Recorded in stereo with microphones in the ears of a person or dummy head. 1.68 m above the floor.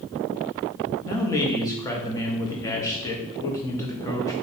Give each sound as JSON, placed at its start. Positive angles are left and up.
{"t": 1.1, "sound": "a man speaking", "side_deg": 25, "distance_m": 0.7}